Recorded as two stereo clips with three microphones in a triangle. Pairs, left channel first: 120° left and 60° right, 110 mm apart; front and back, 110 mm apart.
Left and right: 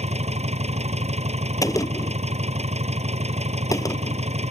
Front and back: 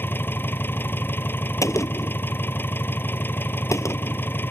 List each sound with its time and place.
0.0 s an engine running: 70° right
1.6 s a gunshot: 60° left